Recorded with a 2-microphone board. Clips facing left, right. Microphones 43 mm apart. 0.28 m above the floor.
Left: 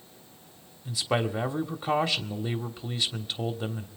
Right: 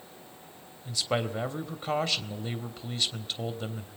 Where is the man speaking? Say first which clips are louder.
Left 2 dB; 5° left (ahead or behind), 1.3 m.